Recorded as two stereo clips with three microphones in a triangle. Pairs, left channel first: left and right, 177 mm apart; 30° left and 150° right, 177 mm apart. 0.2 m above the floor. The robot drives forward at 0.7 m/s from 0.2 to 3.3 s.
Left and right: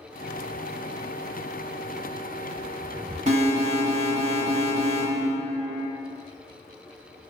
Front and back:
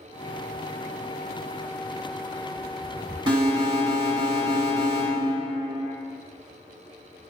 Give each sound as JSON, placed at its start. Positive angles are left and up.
{"t": 3.3, "sound": "an alarm", "azimuth_deg": -105, "distance_m": 1.3}